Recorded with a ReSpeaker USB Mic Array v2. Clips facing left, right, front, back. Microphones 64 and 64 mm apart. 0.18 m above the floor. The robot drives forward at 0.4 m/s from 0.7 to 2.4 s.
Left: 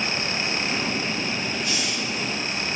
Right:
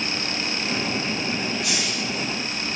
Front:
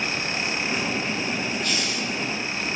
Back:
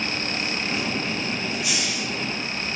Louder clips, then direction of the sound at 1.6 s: Right 1 dB, front 1 dB; 100° right.